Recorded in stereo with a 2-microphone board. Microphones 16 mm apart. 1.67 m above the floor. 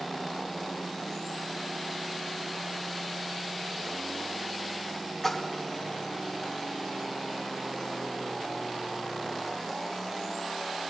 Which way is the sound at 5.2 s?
10° left (ahead or behind).